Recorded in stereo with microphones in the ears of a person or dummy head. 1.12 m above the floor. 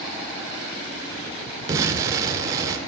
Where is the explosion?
25° right (ahead or behind), 0.7 m.